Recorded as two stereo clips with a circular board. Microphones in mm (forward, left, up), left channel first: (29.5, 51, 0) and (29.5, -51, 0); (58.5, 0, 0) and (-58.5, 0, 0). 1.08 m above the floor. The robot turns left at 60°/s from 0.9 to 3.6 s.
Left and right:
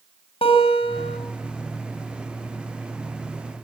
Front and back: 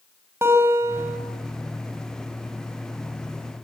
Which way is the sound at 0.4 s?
110° left.